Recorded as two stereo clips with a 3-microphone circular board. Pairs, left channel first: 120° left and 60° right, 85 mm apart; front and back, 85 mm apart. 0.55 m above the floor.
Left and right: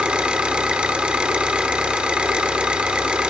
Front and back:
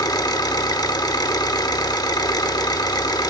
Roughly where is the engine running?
Ahead.